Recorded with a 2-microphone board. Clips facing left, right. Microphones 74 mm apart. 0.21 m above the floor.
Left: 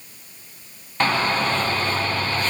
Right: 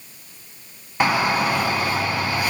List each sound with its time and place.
1.0 s a shout: 10° right (ahead or behind), 2 m